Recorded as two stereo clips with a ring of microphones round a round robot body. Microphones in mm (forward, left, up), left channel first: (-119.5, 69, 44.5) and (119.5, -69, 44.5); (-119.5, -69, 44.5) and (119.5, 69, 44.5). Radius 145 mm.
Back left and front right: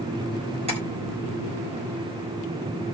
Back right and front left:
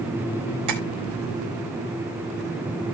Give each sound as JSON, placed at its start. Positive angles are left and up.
{"t": 0.7, "sound": "tapping", "azimuth_deg": 40, "distance_m": 4.0}